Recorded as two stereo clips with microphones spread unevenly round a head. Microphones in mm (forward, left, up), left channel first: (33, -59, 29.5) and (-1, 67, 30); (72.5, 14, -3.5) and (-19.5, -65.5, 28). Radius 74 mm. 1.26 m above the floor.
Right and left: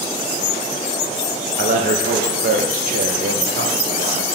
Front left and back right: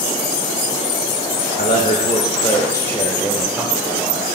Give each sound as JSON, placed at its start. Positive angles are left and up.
{"t": 1.6, "sound": "a man speaking", "azimuth_deg": 80, "distance_m": 1.5}